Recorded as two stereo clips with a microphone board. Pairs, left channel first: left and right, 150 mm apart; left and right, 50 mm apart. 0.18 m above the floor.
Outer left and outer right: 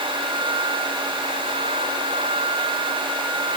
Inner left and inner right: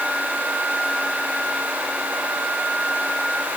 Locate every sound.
Only background noise.